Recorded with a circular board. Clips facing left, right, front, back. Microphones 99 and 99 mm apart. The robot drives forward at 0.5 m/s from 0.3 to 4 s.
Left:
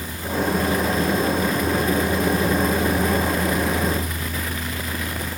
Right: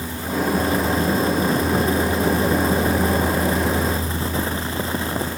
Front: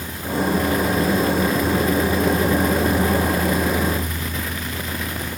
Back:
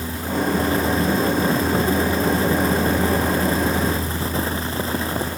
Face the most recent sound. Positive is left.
No sound to turn to.